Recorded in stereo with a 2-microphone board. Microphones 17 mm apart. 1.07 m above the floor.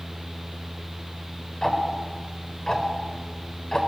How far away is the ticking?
About 3.5 m.